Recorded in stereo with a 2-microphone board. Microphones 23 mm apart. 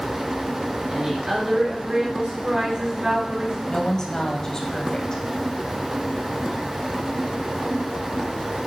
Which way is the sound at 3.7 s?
25° left (ahead or behind).